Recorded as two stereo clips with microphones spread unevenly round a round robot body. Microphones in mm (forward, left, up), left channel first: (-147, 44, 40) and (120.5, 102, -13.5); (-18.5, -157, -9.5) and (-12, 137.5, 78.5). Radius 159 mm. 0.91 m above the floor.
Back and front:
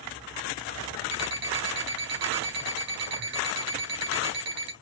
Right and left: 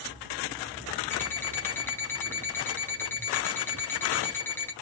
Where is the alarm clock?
5° right, 1.8 m.